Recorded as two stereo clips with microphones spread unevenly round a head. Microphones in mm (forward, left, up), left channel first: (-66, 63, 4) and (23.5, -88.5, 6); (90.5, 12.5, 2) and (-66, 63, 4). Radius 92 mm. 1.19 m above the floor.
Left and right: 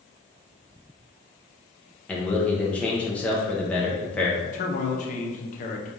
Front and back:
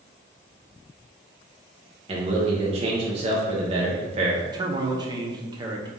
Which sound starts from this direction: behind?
A man speaking, at 2.1 s.